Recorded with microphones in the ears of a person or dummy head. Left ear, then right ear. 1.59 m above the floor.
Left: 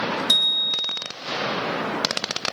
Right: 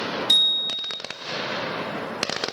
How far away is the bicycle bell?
About 2.5 m.